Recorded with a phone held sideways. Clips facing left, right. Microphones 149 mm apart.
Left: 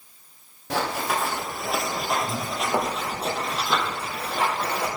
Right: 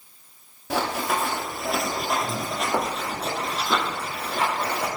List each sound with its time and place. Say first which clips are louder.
0.7 s running footsteps: right 1 dB; centre (ahead or behind), 1.3 m; by 4.9 s 5° left (ahead or behind), 3 m